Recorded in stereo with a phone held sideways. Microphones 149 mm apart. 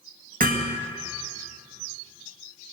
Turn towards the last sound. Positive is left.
turn(degrees=-70)  # may be behind; listen again after turning